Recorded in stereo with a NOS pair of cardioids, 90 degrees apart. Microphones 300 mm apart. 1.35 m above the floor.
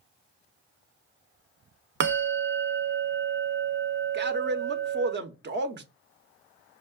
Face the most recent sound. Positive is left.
turn(degrees=-35)